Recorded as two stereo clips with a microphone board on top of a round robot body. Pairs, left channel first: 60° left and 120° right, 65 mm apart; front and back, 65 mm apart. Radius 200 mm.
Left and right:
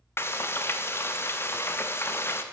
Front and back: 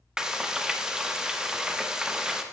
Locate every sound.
0.2 s frying: 100° left, 1.0 m